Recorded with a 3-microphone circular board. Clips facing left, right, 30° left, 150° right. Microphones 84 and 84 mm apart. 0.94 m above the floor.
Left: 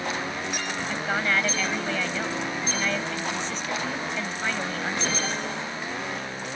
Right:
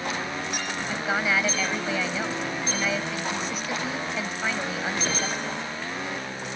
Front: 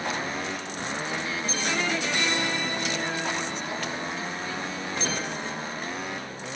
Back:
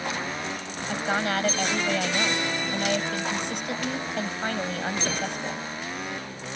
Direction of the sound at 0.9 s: 175° right.